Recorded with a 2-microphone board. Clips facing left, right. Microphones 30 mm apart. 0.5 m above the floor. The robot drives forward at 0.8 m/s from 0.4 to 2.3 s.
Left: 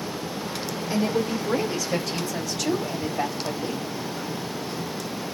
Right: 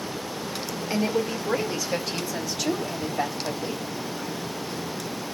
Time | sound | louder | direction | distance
0.9 | a woman speaking | left 1 dB | 25° right (ahead or behind) | 1.3 m